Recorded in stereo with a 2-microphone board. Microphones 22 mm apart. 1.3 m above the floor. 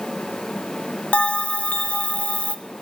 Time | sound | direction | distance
1.1 | a bell | 70° left (ahead or behind) | 1.8 m